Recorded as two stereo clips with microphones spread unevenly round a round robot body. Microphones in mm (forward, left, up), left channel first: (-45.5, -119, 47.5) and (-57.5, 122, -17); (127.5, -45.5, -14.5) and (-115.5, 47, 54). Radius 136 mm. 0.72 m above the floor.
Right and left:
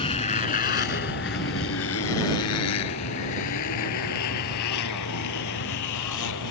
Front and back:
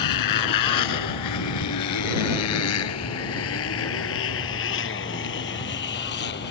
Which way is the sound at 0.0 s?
20° right.